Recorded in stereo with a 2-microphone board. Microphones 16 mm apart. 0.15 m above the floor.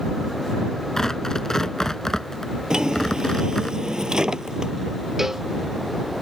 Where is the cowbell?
35° right (ahead or behind).